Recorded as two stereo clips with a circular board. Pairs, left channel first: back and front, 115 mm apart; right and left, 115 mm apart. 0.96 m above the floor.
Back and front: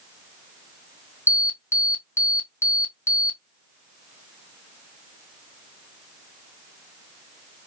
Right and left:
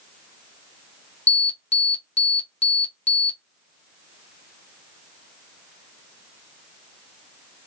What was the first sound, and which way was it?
An alarm, 110° right.